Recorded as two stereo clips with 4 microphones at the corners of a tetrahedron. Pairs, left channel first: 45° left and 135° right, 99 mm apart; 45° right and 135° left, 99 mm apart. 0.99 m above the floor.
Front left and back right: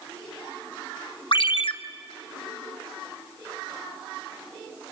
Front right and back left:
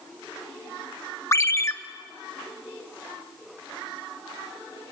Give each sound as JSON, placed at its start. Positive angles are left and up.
{"t": 1.3, "sound": "a ringtone", "azimuth_deg": 15, "distance_m": 0.9}